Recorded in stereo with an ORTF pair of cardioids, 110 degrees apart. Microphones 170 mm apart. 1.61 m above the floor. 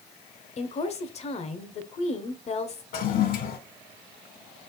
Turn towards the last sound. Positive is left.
turn(degrees=55)